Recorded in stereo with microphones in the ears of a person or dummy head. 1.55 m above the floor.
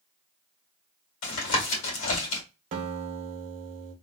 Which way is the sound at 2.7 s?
40° right (ahead or behind).